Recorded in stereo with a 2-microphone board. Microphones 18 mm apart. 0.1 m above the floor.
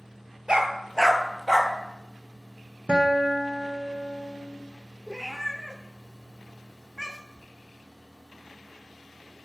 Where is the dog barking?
60° right (ahead or behind), 0.8 m; by 1.7 s 5° right (ahead or behind), 1.0 m.